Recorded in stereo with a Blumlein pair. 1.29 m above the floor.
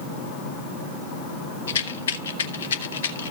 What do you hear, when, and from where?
1.7 s a rattle: 60° left, 1.1 m